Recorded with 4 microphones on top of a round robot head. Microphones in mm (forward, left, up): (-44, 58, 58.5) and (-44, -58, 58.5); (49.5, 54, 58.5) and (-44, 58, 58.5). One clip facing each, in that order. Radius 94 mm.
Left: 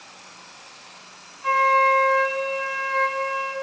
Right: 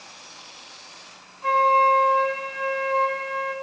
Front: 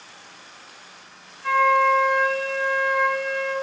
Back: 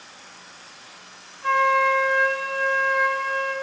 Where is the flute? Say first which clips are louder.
Right 1 dB, front 1 dB; 120° right, 1.9 m.